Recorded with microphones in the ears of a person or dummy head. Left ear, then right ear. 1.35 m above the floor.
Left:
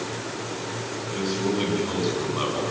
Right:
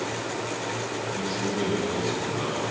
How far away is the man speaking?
About 8.5 m.